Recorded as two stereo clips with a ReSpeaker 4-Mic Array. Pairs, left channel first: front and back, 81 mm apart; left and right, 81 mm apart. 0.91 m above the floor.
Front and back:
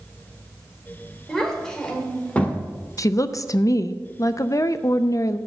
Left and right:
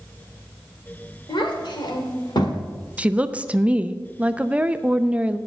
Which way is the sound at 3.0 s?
20° right.